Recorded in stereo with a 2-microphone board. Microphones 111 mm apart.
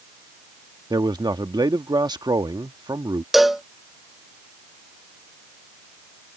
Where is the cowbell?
Centre (ahead or behind).